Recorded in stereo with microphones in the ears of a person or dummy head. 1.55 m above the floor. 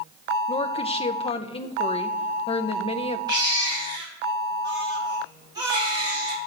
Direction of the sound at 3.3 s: 20° right (ahead or behind).